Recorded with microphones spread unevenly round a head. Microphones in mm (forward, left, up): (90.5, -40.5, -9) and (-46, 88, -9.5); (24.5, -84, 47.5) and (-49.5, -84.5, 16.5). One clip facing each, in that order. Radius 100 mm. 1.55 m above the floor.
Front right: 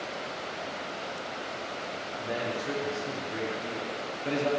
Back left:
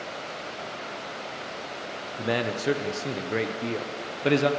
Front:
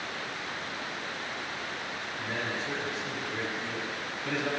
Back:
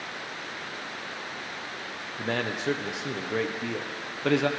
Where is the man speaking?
165° left, 0.7 m.